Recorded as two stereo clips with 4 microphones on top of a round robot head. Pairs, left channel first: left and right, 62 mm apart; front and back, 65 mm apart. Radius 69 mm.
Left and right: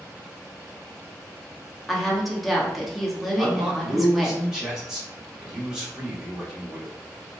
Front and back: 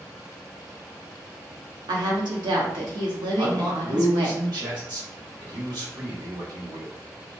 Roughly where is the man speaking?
Behind.